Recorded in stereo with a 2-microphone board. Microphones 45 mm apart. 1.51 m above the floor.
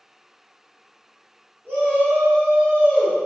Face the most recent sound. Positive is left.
turn(degrees=10)  # may be behind; listen again after turning